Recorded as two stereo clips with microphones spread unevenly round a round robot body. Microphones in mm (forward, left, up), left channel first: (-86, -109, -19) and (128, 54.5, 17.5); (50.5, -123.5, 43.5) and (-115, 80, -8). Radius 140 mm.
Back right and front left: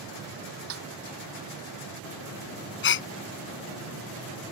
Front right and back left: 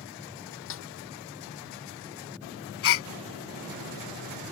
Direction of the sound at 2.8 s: 90° right.